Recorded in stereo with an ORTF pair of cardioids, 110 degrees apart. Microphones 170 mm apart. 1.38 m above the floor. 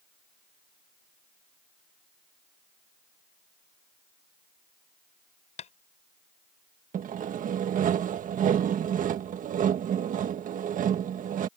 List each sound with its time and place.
5.6 s tapping: 45° left
6.9 s sawing: 50° right